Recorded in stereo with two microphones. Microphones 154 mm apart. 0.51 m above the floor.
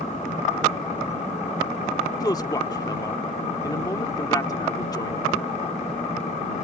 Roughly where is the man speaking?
Left.